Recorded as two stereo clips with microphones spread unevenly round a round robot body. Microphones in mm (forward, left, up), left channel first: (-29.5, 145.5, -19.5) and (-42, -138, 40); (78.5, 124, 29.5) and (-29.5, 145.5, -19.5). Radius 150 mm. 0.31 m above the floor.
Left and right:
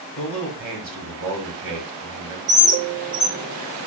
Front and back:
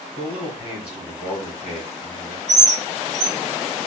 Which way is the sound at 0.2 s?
80° right.